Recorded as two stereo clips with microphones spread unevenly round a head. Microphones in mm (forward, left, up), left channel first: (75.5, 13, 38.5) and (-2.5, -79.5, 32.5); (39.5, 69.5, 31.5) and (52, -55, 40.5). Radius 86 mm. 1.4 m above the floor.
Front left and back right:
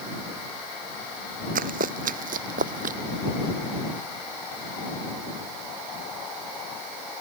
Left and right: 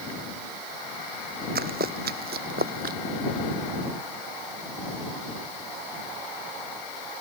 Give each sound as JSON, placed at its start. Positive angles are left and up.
{"t": 1.6, "sound": "running footsteps", "azimuth_deg": -120}